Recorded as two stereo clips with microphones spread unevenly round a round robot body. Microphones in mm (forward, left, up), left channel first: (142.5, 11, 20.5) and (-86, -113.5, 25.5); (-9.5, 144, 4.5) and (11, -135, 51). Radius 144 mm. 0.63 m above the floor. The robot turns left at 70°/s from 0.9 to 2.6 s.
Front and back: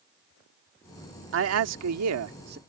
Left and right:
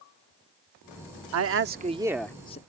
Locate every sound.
1.3 s a man speaking: 120° right; by 2.6 s 155° left